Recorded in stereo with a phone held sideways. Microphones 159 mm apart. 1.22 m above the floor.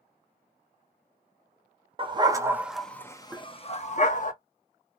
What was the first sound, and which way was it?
A dog barking, 35° right (ahead or behind).